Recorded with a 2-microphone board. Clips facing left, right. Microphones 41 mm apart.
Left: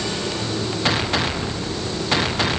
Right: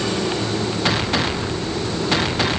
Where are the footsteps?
I don't hear footsteps.